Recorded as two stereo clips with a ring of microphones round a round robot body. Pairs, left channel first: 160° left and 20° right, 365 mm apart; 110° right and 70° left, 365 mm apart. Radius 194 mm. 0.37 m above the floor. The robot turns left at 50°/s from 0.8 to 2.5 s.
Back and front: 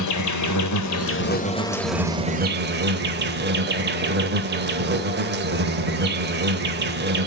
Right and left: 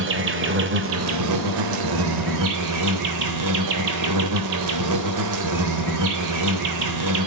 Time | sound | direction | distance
0.0 | an insect | 120° left | 1.2 m